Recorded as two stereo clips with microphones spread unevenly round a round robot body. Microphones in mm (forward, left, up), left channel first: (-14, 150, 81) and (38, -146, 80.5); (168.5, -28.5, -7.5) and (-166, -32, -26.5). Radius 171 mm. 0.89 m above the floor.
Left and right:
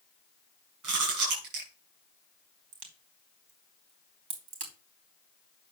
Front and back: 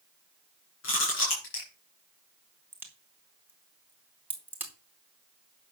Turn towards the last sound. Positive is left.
turn(degrees=-95)